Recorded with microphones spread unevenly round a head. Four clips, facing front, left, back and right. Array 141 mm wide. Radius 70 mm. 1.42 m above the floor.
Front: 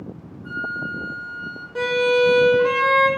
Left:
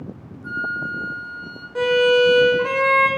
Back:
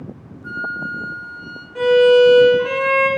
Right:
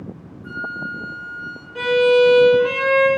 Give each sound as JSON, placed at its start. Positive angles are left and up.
{"t": 0.4, "sound": "a flute", "azimuth_deg": 145, "distance_m": 0.6}
{"t": 1.8, "sound": "a violin", "azimuth_deg": 60, "distance_m": 0.7}